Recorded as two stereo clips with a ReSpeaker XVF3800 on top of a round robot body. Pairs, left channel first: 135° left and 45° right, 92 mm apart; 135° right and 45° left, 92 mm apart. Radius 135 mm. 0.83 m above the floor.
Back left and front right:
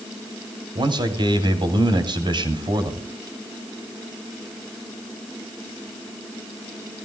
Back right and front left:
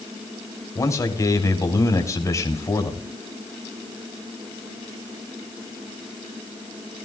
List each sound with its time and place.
0.8 s a man speaking: 80° right, 3.5 m